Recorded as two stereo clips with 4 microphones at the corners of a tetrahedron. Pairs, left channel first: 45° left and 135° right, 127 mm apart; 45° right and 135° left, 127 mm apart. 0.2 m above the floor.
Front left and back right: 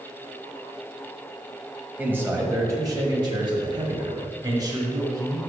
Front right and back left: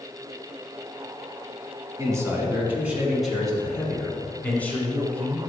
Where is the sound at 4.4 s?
110° right, 1.4 m.